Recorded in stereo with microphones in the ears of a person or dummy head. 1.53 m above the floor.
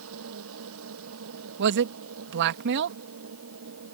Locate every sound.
0.0 s a machine running: 75° right (ahead or behind)
1.6 s a man speaking: 65° right (ahead or behind)